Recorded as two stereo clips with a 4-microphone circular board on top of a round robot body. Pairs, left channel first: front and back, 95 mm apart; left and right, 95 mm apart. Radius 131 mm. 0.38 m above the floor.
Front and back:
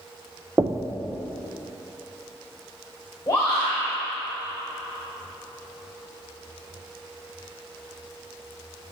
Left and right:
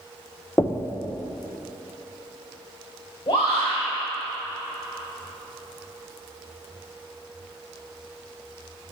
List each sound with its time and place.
0.6 s knocking: 140° left, 0.7 m
3.3 s a shout: 65° left, 2.5 m